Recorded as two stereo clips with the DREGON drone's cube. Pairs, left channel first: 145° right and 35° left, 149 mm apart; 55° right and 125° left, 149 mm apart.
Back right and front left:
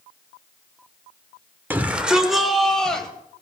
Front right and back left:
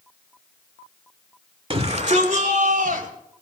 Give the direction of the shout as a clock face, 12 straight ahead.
9 o'clock.